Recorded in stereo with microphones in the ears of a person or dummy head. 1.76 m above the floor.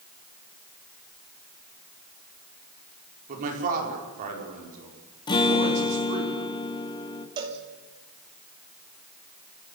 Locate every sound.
3.3 s a man speaking: 45° right (ahead or behind), 6 m
5.3 s a guitar: 25° left (ahead or behind), 1.9 m
7.4 s a cowbell: 25° right (ahead or behind), 2.5 m